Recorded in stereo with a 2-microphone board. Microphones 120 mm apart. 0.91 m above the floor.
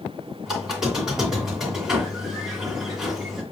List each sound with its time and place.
0.5 s a squeak: 5° right (ahead or behind), 1.7 m